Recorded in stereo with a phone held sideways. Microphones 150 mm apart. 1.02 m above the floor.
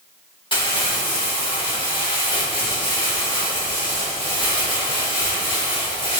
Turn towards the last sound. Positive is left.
turn(degrees=35)  # may be behind; listen again after turning